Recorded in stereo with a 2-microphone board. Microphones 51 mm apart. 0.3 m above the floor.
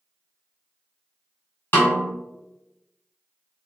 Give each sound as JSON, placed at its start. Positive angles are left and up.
{"t": 1.7, "sound": "a snare drum", "side_deg": 40, "distance_m": 1.6}